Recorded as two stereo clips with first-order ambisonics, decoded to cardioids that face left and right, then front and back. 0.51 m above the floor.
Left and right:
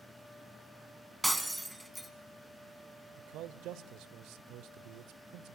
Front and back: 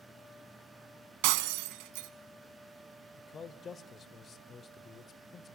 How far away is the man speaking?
About 1.4 m.